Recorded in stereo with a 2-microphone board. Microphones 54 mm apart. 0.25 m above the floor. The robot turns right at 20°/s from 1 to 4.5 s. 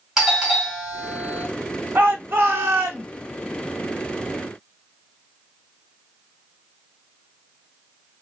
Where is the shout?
35° right (ahead or behind), 1.4 m; by 3.1 s 50° right (ahead or behind), 1.4 m.